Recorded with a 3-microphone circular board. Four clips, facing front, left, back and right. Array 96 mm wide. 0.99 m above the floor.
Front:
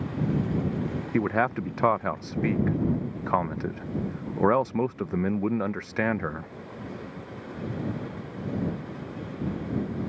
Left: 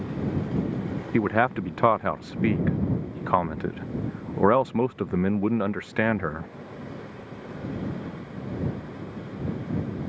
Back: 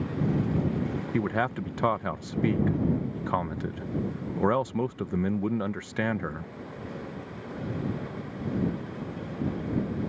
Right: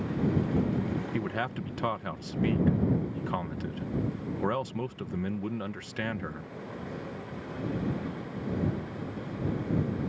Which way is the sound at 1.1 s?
70° left.